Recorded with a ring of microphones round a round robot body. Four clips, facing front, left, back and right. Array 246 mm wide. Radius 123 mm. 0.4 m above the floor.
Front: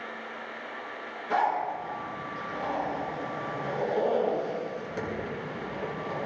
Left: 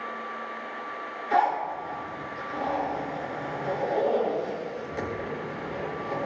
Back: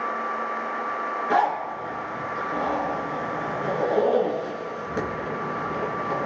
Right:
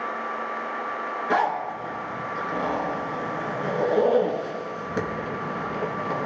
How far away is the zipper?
About 4 m.